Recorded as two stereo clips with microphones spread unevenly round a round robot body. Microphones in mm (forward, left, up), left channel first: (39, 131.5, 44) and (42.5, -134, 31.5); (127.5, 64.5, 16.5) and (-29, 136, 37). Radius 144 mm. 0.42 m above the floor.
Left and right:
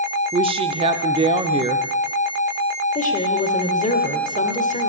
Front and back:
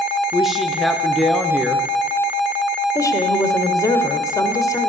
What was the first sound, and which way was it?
A woman speaking, 100° right.